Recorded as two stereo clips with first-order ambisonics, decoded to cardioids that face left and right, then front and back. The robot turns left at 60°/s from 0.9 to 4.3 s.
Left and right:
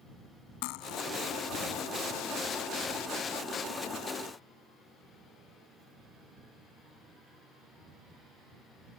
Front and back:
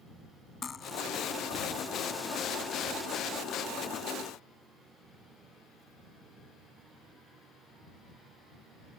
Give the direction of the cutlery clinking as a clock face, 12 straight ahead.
10 o'clock.